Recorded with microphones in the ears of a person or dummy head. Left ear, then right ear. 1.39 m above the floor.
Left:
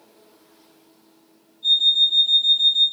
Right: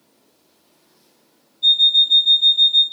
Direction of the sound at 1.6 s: 50° right (ahead or behind).